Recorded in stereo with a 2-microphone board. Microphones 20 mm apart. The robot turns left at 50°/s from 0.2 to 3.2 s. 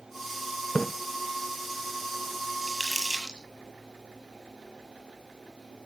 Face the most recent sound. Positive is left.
turn(degrees=-30)  # may be behind; listen again after turning